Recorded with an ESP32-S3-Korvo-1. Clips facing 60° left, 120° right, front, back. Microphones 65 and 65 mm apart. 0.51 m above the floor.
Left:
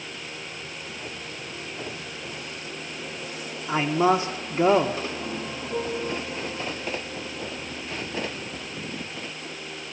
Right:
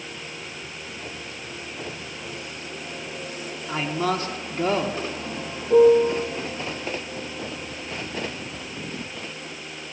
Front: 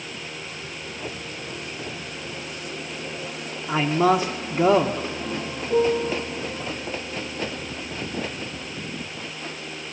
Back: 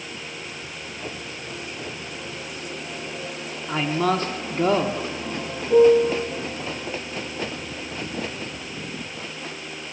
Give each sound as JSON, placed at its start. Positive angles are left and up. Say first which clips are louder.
{"t": 3.7, "sound": "a man speaking", "louder": "left 4 dB, front 3 dB", "azimuth_deg": 50, "distance_m": 0.7}
{"t": 5.7, "sound": "a piano", "louder": "right 15 dB, back 7 dB", "azimuth_deg": -110, "distance_m": 1.1}